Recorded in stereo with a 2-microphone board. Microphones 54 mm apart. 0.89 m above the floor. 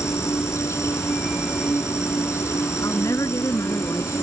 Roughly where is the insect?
Left.